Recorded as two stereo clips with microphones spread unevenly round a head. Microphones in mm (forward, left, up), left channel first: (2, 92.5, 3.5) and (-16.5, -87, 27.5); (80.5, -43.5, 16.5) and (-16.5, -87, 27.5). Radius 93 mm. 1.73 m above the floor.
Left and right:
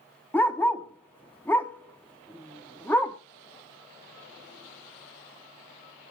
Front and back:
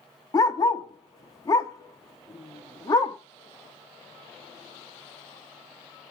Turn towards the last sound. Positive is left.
turn(degrees=-5)